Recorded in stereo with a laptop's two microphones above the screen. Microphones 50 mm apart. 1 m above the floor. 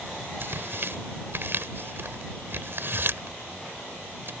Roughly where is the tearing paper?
Right.